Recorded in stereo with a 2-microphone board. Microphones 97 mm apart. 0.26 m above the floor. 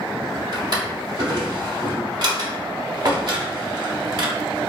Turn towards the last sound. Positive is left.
turn(degrees=-50)  # may be behind; listen again after turning